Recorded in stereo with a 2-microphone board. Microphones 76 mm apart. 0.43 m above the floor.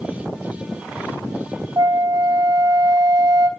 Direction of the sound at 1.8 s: 55° right (ahead or behind).